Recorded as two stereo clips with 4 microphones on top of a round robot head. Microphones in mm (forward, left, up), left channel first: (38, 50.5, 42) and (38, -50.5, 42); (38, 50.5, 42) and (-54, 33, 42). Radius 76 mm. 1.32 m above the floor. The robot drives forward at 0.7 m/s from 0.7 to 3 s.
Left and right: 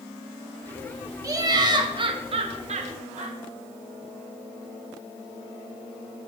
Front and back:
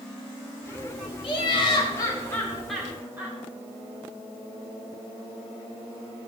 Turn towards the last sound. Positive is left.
turn(degrees=-95)